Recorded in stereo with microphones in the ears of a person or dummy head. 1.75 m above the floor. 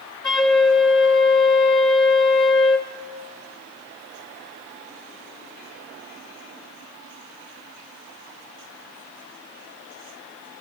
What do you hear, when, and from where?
0.2 s a flute: 5° left (ahead or behind), 1.3 m